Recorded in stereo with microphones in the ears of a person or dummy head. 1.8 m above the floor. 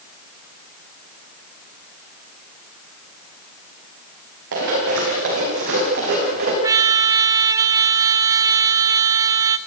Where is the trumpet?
15° right (ahead or behind), 1.2 m.